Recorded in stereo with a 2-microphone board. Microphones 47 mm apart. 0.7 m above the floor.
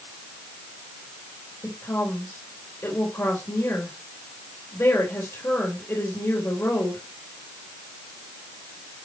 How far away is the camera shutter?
I don't hear a camera shutter.